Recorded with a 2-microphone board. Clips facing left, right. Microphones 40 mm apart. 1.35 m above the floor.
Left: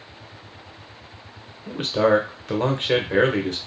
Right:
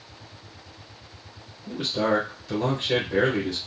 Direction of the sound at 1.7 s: 55° left (ahead or behind).